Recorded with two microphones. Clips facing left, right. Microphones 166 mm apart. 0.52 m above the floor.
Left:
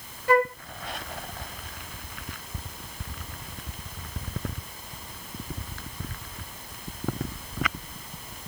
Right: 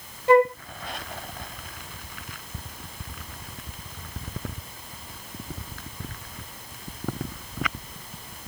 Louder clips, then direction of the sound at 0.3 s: Right 5 dB; 25° right (ahead or behind).